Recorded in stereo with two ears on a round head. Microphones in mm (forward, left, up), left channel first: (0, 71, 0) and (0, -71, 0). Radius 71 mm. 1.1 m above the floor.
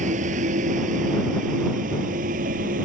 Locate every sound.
0.0 s a vehicle: 55° right (ahead or behind); by 2.9 s 60° right (ahead or behind)